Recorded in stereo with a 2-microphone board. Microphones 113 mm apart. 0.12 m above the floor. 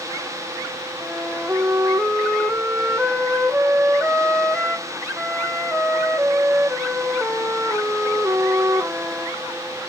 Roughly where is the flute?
Centre.